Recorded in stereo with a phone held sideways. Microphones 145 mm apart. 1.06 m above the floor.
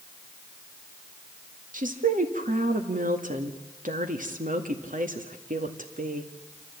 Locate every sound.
1.7 s a woman speaking: 65° right (ahead or behind), 2 m